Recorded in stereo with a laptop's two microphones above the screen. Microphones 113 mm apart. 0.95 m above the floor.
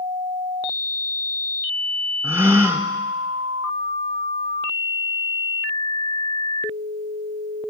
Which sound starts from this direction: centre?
A gasp, at 2.2 s.